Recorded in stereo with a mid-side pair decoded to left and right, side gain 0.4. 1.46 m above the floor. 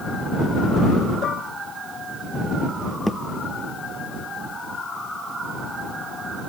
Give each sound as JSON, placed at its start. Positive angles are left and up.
{"t": 1.2, "sound": "dishes clattering", "azimuth_deg": 70}
{"t": 3.1, "sound": "a thud", "azimuth_deg": 0}